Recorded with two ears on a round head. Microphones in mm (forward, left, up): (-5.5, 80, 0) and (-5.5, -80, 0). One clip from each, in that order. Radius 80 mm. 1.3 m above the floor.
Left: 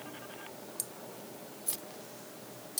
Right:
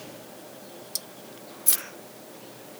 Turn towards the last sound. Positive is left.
turn(degrees=-60)  # may be behind; listen again after turning